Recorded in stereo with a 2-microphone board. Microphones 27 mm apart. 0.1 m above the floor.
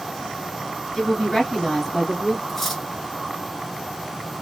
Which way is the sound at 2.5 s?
5° left (ahead or behind).